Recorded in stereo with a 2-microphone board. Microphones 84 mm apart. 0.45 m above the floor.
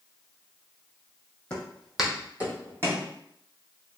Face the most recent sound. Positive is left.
turn(degrees=-35)  # may be behind; listen again after turning